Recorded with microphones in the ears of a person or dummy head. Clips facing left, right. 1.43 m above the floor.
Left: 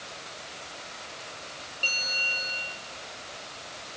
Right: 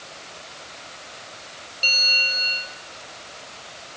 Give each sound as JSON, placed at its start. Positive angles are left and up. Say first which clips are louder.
{"t": 1.8, "sound": "a bell", "louder": "right 5 dB", "side_deg": -35, "distance_m": 4.5}